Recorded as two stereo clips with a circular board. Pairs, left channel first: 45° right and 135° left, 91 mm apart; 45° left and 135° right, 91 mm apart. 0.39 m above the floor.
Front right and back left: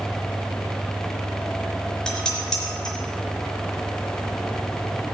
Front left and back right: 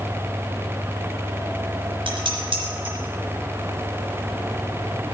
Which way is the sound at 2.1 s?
130° right.